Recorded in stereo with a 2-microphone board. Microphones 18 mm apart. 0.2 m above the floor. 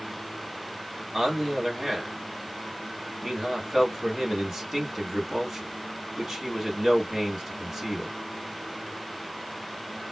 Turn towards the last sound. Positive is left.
turn(degrees=-10)  # may be behind; listen again after turning